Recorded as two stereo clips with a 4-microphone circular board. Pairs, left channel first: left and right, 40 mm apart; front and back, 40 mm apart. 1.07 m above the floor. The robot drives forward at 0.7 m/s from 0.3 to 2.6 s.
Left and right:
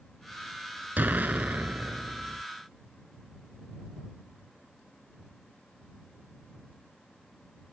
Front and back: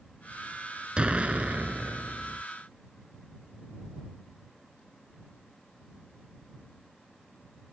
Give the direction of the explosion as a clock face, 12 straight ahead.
4 o'clock.